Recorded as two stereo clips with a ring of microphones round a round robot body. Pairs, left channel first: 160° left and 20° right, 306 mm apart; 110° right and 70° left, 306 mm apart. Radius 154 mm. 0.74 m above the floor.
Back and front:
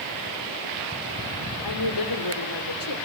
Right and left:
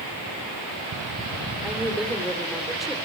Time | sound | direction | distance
1.6 | a woman speaking | 155° left | 2.5 m